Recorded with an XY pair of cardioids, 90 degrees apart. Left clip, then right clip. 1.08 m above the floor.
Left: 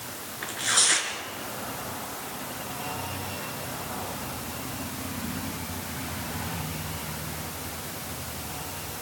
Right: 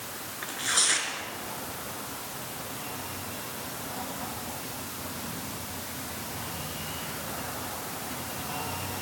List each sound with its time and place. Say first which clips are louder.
0.4 s tearing paper: left 3 dB; 15° left, 4 m